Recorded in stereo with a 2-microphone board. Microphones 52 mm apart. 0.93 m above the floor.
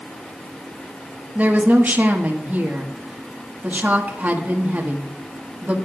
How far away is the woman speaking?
About 1.5 m.